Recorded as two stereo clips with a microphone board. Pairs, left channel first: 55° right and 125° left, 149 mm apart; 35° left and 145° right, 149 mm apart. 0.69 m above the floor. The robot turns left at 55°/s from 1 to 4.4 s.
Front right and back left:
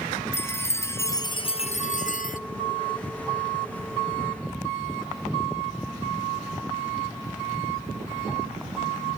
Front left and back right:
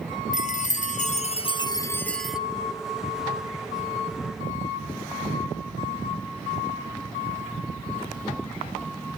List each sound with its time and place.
0.3 s a chime: 15° left, 0.6 m; by 2.4 s 60° right, 0.6 m